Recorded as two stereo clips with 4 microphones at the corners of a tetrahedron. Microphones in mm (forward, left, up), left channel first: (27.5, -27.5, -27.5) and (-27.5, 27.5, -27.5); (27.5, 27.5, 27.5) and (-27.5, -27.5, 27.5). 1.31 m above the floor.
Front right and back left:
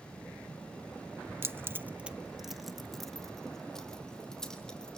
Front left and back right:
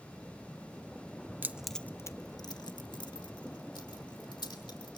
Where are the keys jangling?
175° left, 0.5 m; by 5.0 s 35° left, 3 m.